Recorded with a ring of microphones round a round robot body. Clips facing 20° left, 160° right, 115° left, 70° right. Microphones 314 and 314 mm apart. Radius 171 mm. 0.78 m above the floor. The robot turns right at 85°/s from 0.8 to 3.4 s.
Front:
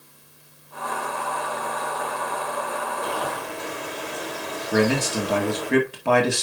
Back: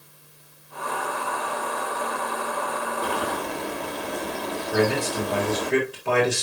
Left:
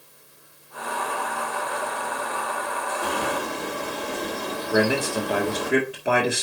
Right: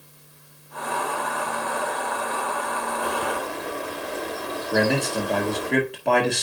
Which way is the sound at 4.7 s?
30° left.